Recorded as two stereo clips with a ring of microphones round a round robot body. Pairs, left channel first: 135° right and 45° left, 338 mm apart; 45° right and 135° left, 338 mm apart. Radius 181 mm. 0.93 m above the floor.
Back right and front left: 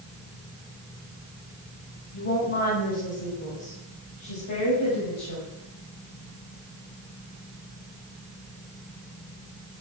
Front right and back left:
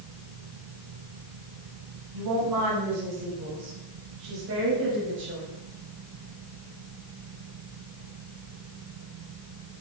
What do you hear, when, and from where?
2.1 s a woman speaking: 170° left, 7 m; by 5.5 s 165° right, 6 m